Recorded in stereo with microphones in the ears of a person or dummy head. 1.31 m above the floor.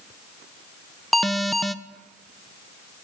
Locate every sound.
1.1 s an alarm: 5° left (ahead or behind), 0.9 m